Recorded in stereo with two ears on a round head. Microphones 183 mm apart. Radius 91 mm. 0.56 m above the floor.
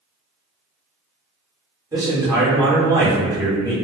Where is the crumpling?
I don't hear crumpling.